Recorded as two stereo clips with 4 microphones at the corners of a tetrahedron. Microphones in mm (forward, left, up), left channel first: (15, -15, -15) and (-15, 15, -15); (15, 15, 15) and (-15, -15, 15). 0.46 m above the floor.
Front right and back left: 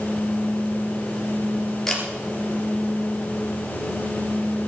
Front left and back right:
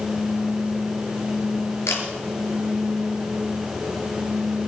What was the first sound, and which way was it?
A camera shutter, 35° left.